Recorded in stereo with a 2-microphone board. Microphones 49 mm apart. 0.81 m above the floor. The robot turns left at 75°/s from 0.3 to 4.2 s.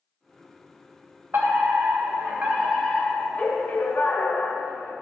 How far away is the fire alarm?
About 3.5 m.